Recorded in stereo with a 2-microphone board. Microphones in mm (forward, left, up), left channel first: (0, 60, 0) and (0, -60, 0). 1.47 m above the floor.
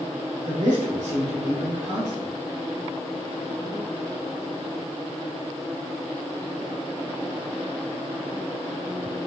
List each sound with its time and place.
0.5 s a man speaking: 80° right, 1.2 m